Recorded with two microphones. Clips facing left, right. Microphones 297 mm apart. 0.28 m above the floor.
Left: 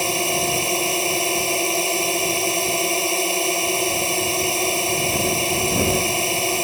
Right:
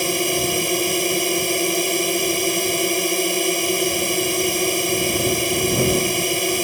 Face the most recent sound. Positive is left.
turn(degrees=-20)  # may be behind; listen again after turning